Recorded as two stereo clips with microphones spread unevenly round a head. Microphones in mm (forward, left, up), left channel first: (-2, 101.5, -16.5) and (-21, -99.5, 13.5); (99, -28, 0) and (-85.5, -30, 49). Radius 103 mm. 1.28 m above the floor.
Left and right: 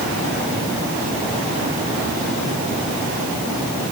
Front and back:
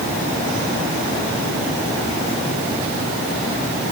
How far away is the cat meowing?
No cat meowing in this recording.